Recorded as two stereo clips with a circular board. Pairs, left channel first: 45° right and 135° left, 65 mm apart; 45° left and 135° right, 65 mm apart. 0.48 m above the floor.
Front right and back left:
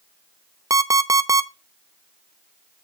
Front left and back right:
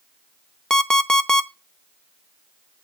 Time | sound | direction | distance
0.7 | an alarm clock | 125° left | 0.7 m